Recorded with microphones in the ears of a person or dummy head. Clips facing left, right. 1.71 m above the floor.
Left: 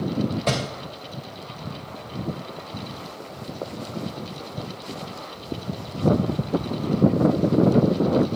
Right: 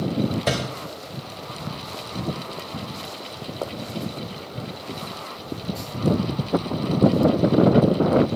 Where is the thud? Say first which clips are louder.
Even; 15° right (ahead or behind), 3 m.